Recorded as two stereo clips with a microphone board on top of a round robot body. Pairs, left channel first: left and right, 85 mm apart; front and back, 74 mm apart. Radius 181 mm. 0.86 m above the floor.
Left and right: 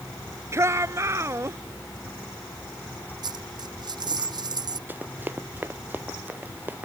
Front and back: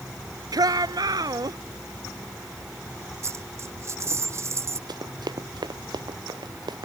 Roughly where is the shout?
Behind right.